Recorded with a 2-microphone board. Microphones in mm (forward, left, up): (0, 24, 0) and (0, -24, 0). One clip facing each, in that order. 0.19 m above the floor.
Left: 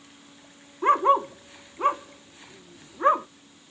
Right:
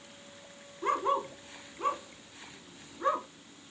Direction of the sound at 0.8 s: 40° left (ahead or behind).